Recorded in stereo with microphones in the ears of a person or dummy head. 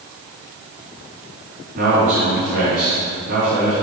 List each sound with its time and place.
1.8 s a man speaking: 60° right (ahead or behind), 3.5 m